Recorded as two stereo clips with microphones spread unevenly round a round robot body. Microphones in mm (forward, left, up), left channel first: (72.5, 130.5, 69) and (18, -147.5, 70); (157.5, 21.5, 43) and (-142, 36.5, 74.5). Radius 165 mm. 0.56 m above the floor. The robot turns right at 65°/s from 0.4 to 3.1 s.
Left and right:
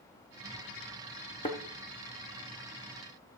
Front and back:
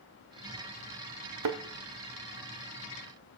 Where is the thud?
150° left, 1.2 m; by 1.6 s 165° left, 1.2 m.